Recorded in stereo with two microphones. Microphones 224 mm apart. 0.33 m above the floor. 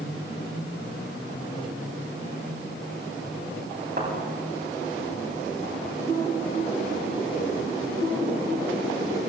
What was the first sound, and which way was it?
A thud, 45° right (ahead or behind).